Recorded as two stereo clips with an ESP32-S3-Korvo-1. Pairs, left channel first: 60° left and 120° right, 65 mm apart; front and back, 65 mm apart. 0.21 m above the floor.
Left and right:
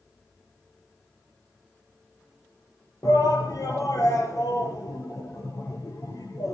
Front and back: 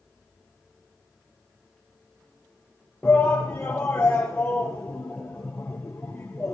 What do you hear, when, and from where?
3.0 s a shout: 65° left, 4 m